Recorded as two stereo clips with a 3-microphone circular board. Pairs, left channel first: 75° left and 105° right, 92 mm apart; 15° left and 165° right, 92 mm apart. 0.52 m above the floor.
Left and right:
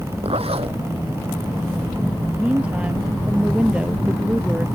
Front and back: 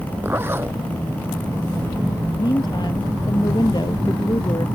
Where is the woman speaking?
25° right.